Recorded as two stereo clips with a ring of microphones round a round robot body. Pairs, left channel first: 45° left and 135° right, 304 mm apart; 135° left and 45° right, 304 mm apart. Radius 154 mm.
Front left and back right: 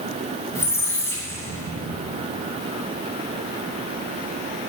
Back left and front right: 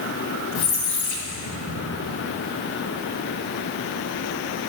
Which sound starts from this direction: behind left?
A squeak, at 0.6 s.